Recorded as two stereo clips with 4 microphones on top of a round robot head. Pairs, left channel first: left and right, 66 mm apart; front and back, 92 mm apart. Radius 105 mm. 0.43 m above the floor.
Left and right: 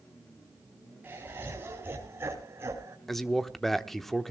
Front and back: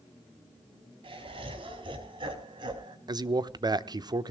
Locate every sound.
1.0 s laughter: 155° right, 5 m; by 3.0 s 140° right, 4 m
3.1 s a man speaking: 175° left, 1.1 m